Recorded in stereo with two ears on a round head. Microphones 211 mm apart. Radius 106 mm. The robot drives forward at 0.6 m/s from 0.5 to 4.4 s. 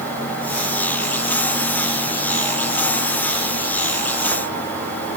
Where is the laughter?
I don't hear laughter.